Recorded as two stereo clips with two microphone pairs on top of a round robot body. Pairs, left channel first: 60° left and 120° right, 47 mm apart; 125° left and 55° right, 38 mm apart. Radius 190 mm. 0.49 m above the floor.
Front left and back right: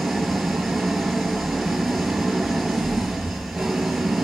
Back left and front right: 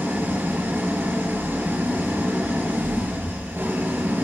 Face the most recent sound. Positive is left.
turn(degrees=-35)